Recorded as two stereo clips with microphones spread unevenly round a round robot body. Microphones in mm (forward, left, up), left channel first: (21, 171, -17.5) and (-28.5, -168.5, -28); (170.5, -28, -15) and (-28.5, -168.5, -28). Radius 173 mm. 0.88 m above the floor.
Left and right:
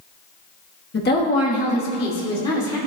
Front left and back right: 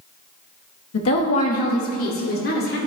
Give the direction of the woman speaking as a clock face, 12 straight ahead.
11 o'clock.